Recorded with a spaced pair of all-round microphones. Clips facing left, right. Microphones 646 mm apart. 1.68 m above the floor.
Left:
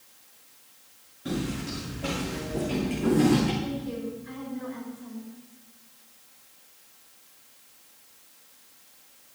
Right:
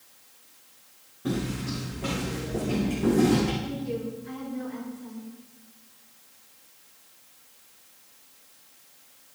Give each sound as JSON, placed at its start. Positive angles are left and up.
{"t": 1.2, "sound": "footsteps", "side_deg": -75, "distance_m": 7.5}
{"t": 3.6, "sound": "a woman speaking", "side_deg": -90, "distance_m": 6.5}